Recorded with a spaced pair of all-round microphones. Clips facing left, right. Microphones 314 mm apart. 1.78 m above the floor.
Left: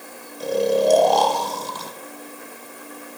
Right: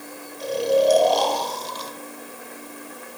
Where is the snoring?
60° left (ahead or behind), 1.7 m.